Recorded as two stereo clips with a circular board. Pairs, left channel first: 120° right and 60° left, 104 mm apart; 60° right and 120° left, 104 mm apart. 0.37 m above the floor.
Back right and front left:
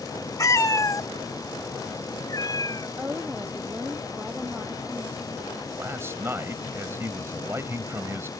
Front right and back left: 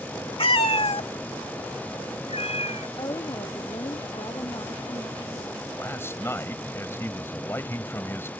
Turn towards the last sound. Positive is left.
turn(degrees=0)